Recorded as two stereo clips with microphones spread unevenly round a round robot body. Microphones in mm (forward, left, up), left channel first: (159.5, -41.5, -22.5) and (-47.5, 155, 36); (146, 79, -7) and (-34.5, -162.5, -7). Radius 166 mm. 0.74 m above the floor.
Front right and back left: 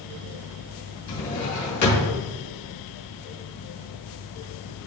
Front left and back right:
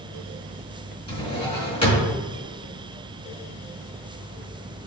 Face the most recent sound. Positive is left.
turn(degrees=-20)